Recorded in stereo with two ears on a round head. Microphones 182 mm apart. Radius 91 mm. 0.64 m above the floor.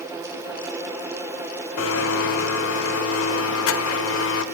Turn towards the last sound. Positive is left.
turn(degrees=75)  # may be behind; listen again after turning